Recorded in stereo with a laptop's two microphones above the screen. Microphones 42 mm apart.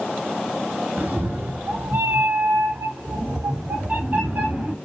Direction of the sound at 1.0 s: 45° right (ahead or behind).